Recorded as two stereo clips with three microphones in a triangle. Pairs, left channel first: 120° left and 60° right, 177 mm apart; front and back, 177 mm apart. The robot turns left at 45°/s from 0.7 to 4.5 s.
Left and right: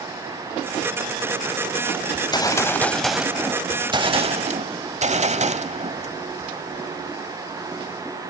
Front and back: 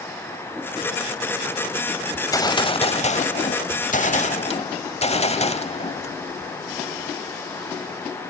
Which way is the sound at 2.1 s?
75° left.